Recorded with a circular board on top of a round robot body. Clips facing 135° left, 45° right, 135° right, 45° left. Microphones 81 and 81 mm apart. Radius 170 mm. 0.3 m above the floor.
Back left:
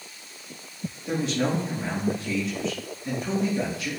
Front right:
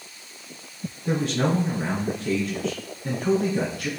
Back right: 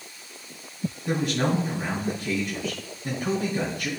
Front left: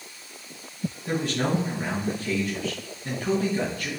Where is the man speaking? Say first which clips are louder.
Front right 2 dB, back right 1 dB; 70° right, 3.5 m.